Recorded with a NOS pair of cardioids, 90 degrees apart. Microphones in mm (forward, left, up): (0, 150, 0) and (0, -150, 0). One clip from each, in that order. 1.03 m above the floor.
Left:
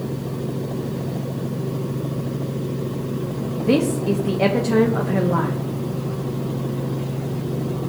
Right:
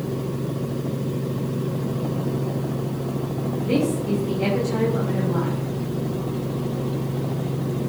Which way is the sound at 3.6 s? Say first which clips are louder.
Left 4 dB; 55° left.